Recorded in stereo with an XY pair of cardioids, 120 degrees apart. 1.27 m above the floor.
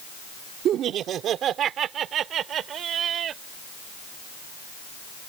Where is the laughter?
60° right; by 3.4 s 55° right.